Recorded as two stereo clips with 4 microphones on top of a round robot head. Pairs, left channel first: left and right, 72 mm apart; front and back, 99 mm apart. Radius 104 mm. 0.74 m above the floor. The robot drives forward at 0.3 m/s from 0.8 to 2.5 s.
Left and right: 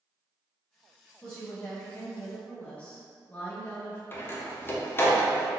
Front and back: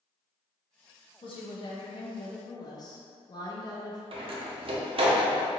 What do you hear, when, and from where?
1.2 s a woman speaking: 15° left, 1.0 m; by 4.0 s 25° left, 0.7 m
4.1 s a door slam: 150° left, 0.8 m